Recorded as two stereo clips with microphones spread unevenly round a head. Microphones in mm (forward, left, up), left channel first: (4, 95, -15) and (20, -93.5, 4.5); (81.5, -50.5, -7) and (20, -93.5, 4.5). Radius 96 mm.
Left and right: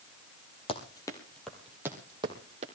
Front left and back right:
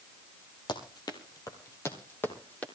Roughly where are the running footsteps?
Ahead left.